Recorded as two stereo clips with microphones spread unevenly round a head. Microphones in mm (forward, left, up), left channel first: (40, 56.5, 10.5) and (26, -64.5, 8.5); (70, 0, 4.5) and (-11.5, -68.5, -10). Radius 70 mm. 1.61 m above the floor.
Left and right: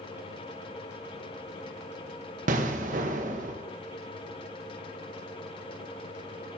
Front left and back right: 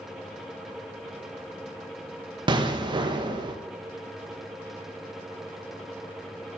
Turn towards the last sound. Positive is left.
turn(degrees=-95)